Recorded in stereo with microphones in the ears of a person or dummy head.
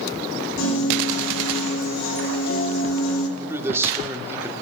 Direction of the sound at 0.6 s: 75° left (ahead or behind).